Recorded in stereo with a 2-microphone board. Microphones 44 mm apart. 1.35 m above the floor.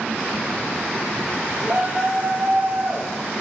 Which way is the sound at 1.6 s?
50° right (ahead or behind).